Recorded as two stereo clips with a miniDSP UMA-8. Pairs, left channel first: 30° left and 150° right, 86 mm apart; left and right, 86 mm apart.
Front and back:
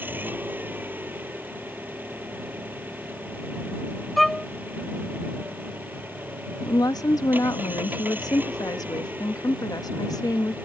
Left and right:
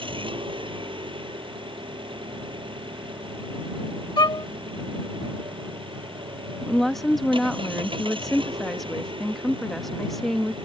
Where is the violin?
120° left.